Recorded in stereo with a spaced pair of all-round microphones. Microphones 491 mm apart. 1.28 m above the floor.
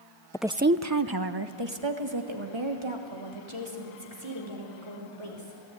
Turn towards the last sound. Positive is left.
turn(degrees=-70)  # may be behind; listen again after turning